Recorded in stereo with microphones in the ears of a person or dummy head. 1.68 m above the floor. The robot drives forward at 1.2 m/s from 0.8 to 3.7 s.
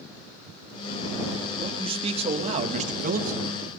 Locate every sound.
1.6 s a man speaking: 25° right (ahead or behind), 4 m; by 3.4 s 45° right (ahead or behind), 2 m